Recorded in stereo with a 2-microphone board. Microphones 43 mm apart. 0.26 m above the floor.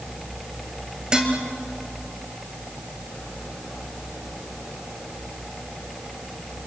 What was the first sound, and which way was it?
Dishes clattering, 20° right (ahead or behind).